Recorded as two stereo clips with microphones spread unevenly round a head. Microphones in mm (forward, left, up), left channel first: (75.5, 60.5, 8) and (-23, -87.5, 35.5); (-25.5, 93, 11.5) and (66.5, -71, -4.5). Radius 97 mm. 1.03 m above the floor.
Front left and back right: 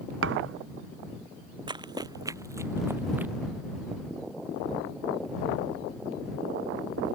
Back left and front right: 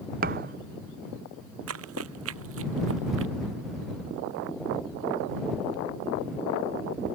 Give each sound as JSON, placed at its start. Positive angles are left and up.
{"t": 0.2, "sound": "a thud", "azimuth_deg": -110}
{"t": 1.7, "sound": "running footsteps", "azimuth_deg": -60}